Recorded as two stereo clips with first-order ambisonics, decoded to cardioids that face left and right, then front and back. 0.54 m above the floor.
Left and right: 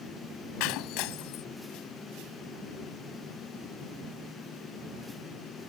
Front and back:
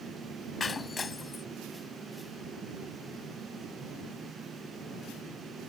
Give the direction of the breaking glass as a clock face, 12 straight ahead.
10 o'clock.